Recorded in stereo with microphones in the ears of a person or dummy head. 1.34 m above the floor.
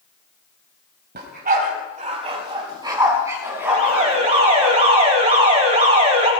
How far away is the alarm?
About 4.5 m.